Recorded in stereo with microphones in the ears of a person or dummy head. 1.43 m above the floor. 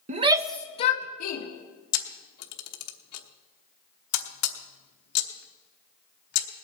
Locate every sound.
0.1 s a shout: 40° right (ahead or behind), 0.8 m; by 1.4 s 65° left (ahead or behind), 1.5 m
1.9 s a camera shutter: 75° left (ahead or behind), 1.1 m